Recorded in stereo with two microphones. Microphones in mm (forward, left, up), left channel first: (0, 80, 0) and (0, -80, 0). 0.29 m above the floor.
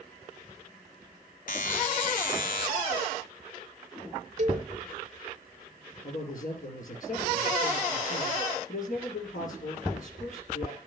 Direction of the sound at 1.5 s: 60° left (ahead or behind).